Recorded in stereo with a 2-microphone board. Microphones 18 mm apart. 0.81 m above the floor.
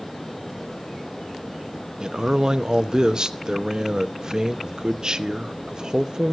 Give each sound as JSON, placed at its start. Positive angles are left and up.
{"t": 2.0, "sound": "a man speaking", "side_deg": -45, "distance_m": 0.7}